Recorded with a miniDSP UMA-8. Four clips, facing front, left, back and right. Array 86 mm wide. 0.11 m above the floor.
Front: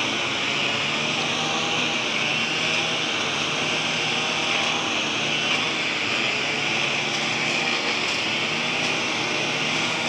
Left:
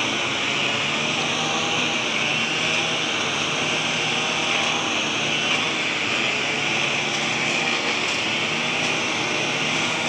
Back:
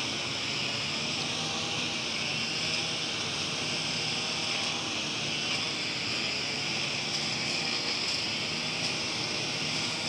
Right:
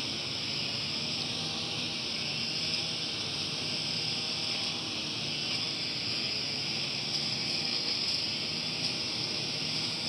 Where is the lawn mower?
55° left.